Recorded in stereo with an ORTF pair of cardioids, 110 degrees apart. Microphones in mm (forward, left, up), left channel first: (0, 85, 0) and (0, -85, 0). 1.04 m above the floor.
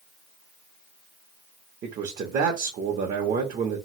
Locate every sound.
1.8 s a man speaking: 55° right, 0.8 m